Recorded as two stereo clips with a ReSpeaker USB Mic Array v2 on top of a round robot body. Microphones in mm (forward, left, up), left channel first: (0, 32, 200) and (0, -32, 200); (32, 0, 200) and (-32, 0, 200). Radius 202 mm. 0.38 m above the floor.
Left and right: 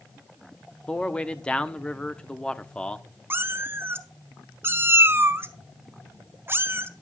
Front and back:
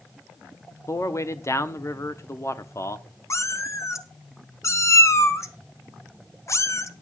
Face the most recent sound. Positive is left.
turn(degrees=-40)